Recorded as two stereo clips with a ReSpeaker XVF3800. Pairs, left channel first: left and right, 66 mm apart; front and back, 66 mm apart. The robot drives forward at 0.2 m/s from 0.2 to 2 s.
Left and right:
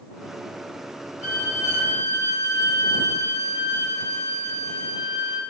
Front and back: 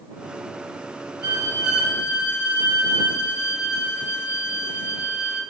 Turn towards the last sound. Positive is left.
turn(degrees=110)